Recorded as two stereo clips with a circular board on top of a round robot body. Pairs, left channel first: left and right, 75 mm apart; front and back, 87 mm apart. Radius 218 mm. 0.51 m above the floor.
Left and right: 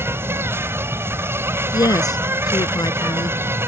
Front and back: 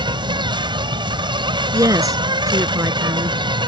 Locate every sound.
0.0 s an insect: 150° right
1.7 s a woman speaking: 130° left